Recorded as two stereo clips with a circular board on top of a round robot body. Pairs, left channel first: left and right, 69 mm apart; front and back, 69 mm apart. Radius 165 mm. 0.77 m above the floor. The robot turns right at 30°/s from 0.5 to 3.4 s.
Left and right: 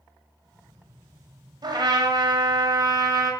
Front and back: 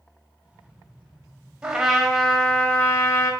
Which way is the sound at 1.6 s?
100° right.